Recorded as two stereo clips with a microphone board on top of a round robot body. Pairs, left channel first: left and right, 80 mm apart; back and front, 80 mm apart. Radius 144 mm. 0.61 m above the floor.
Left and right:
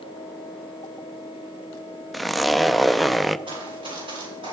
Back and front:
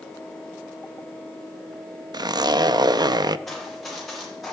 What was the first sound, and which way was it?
A zipper, straight ahead.